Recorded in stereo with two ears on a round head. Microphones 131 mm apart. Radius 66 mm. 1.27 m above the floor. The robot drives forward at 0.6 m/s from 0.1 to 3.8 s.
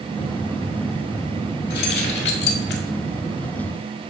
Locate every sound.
1.7 s keys jangling: 75° left (ahead or behind), 2.5 m; by 2.8 s 85° left, 2.5 m